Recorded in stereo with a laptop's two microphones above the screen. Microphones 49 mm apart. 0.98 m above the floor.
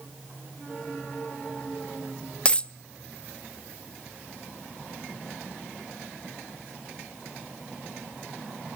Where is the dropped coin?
20° left (ahead or behind), 0.5 m.